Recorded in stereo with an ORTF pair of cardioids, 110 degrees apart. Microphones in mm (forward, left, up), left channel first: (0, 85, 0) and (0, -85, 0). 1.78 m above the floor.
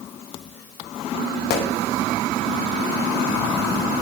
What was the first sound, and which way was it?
A gunshot, 70° left.